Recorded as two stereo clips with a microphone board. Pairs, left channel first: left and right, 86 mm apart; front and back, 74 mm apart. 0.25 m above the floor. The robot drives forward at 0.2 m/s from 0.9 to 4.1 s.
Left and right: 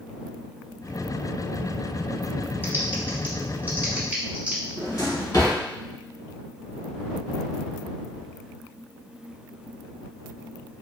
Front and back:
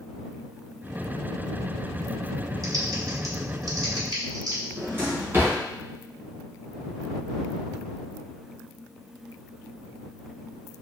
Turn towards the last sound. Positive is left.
turn(degrees=125)